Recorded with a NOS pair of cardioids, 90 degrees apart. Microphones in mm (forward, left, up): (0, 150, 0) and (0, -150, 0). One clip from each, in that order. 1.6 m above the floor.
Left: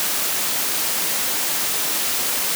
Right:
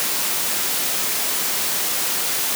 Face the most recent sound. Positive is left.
No sound to turn to.